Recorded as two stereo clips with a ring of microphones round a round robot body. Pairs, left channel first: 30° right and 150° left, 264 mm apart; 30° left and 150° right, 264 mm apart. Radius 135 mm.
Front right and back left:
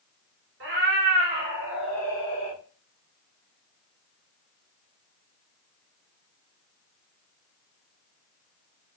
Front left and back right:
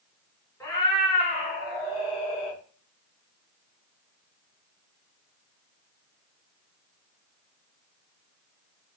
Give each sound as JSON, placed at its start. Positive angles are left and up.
{"t": 0.6, "sound": "a cat meowing", "azimuth_deg": 110, "distance_m": 1.3}